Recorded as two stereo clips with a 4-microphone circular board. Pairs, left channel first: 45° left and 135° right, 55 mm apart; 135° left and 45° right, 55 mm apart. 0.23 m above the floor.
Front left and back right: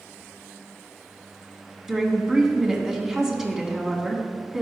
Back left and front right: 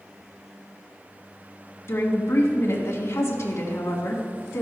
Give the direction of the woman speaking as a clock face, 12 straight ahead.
7 o'clock.